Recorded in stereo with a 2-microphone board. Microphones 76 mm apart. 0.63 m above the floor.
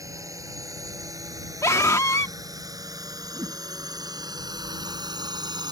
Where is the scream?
45° left (ahead or behind).